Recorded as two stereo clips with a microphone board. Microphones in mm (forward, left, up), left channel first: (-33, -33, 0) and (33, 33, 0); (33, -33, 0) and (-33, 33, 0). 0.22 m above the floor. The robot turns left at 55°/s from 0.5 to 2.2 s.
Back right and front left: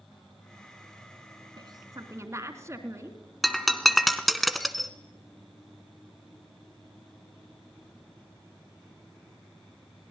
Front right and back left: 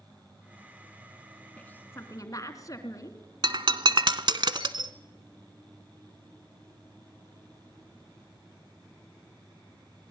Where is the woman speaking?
30° left, 2.5 m; by 3.2 s 5° right, 2.5 m.